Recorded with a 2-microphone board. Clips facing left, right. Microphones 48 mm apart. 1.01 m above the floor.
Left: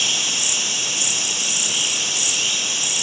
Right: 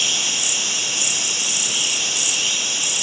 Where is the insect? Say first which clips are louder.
Even; 15° left (ahead or behind), 1.5 m.